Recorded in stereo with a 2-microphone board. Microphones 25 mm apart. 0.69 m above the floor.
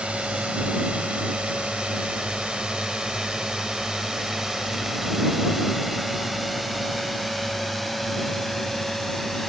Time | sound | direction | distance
0.0 | a drone | 65° right (ahead or behind) | ?